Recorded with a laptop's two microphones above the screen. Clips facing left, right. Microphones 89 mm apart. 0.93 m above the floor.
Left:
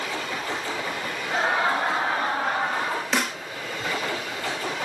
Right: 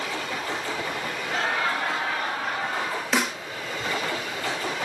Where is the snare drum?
5° right (ahead or behind), 0.6 m.